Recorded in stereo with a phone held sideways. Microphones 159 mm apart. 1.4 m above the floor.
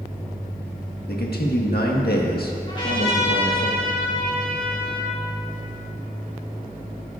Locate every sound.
1.1 s a man speaking: 85° left, 1.5 m
2.7 s a trumpet: 35° left (ahead or behind), 3 m